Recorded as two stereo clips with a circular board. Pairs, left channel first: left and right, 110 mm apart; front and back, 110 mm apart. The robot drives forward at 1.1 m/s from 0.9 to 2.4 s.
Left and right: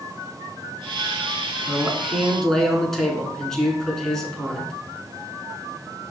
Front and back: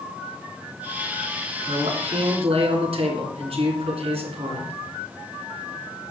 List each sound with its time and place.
1.7 s a man speaking: 175° left, 2.5 m